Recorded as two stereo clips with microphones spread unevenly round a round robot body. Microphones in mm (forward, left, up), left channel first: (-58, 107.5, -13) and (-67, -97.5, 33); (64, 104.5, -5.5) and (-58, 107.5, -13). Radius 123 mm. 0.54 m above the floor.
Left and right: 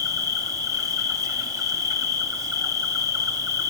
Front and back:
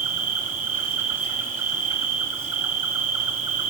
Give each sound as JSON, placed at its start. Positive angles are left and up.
{"t": 0.0, "sound": "an insect", "azimuth_deg": -165, "distance_m": 1.0}